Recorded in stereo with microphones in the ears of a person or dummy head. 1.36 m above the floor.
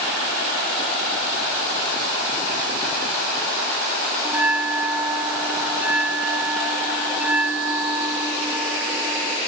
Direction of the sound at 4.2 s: 10° right (ahead or behind).